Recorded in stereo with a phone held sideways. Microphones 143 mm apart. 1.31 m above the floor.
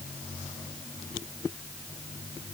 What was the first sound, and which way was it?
Only background noise.